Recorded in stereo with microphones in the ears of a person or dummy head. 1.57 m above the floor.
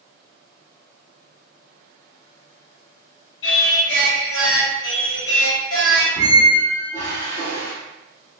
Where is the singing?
80° left, 1.3 m.